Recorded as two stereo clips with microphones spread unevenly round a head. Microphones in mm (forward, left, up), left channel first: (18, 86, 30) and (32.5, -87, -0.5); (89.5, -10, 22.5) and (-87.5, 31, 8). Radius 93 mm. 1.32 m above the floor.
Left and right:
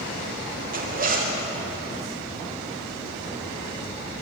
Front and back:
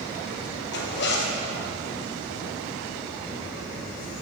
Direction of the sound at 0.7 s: 50° right.